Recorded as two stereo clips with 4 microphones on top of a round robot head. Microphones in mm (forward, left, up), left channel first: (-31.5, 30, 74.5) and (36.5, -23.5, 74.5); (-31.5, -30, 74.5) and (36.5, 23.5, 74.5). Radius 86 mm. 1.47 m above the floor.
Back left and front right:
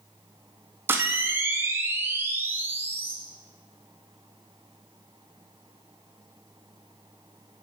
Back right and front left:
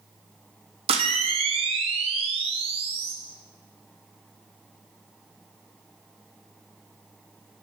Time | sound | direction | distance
0.9 | a camera shutter | 30° left | 0.9 m